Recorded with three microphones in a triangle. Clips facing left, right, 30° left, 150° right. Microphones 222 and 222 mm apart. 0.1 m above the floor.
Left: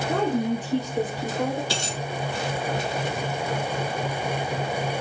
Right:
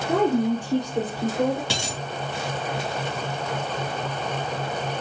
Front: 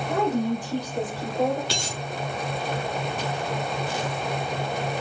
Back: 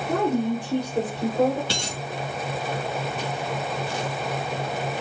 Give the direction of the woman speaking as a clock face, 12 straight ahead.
5 o'clock.